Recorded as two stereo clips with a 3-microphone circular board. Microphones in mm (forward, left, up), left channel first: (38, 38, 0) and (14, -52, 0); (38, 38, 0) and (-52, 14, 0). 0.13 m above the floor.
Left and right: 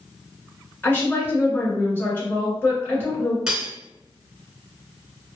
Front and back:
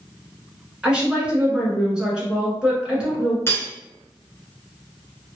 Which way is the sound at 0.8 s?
120° left.